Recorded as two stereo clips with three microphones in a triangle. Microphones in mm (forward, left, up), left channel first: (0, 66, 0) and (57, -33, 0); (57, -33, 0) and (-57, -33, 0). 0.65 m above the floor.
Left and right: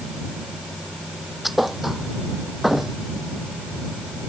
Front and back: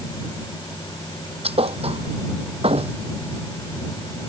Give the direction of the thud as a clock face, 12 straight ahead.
5 o'clock.